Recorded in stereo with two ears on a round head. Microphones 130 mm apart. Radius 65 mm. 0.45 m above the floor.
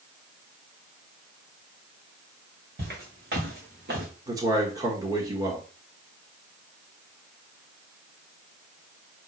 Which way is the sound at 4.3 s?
25° right (ahead or behind).